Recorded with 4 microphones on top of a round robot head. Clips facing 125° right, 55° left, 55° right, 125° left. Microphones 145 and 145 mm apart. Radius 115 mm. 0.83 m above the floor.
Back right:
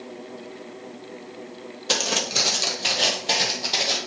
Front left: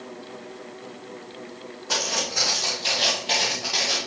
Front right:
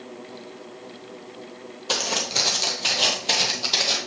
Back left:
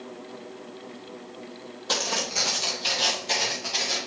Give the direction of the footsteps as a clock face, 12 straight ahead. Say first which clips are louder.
Back right 2 dB, front right 2 dB; 4 o'clock.